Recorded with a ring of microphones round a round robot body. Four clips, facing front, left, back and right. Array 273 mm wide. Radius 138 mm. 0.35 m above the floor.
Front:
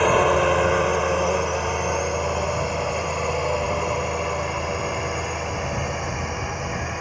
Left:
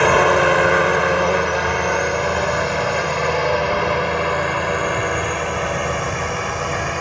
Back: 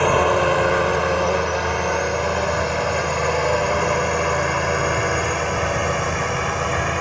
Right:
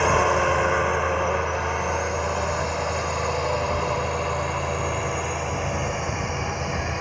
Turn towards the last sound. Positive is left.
turn(degrees=140)